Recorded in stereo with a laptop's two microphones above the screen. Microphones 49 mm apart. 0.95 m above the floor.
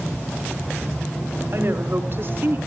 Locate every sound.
1.5 s a woman speaking: 55° right (ahead or behind), 3.5 m; by 2.6 s 45° right (ahead or behind), 2.5 m